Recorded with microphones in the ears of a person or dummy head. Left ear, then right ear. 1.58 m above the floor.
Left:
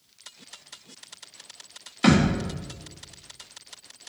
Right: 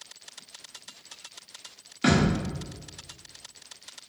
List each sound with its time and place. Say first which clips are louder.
2.0 s a thud: left 2 dB; 15° left (ahead or behind), 1.2 m